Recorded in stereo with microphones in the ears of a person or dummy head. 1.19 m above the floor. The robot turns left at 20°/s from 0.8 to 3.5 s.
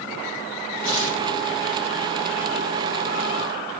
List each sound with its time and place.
0.8 s tearing paper: 75° left (ahead or behind), 6.5 m; by 1.2 s 70° left (ahead or behind), 6.5 m